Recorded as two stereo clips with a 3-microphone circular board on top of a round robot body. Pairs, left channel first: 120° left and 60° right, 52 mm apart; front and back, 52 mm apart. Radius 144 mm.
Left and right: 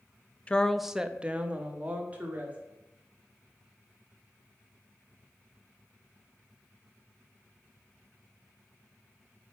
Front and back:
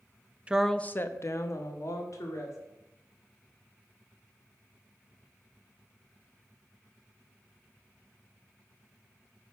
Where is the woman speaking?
150° left, 0.6 m; by 2.6 s straight ahead, 2.0 m.